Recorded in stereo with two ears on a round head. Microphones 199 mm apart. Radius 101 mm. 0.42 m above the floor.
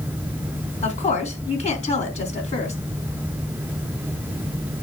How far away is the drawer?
No drawer in this recording.